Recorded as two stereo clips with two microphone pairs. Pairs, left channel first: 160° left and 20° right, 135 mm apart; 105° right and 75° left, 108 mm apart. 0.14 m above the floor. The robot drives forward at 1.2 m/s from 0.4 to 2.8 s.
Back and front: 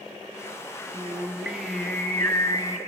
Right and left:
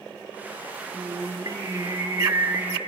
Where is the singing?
45° left, 2.5 m; by 2.8 s 125° left, 2 m.